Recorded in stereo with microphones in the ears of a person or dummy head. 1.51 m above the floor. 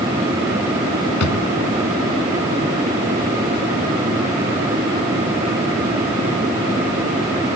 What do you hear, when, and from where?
1.2 s a drawer: 85° left